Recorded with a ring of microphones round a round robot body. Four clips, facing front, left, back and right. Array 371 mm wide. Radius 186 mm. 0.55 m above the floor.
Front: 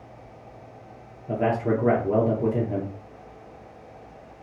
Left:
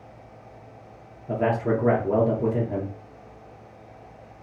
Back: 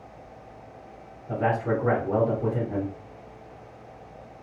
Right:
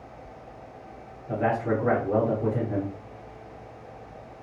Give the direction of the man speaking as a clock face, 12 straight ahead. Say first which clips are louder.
Left 2 dB, front 2 dB; 11 o'clock.